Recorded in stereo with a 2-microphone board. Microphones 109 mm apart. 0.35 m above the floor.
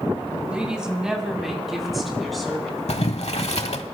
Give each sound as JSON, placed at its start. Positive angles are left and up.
{"t": 0.5, "sound": "a woman speaking", "side_deg": -10, "distance_m": 1.7}
{"t": 2.9, "sound": "boiling", "side_deg": 75, "distance_m": 0.8}